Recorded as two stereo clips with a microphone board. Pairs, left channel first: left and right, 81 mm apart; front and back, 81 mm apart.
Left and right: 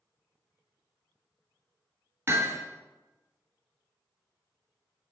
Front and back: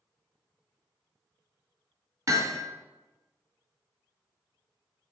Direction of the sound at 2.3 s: 145° right.